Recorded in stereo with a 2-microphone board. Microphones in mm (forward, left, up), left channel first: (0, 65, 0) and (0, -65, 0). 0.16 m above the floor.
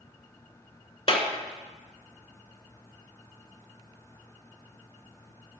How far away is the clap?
About 1.4 m.